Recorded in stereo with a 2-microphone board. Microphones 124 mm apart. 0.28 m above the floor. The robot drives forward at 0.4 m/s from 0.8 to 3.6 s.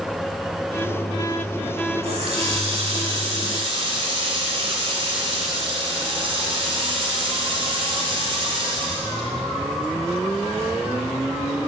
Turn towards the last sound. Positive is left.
turn(degrees=-50)  # may be behind; listen again after turning